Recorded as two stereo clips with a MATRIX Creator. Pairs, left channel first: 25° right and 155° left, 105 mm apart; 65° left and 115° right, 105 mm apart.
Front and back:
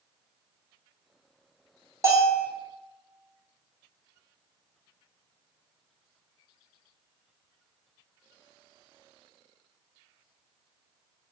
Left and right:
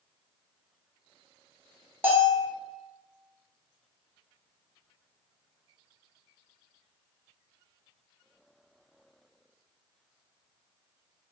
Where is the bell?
165° right, 0.7 m.